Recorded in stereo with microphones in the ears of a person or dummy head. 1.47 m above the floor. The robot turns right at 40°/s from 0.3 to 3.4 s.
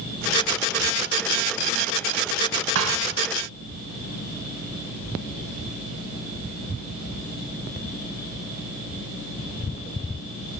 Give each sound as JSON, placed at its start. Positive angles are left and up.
{"t": 2.8, "sound": "a thud", "side_deg": -70, "distance_m": 3.0}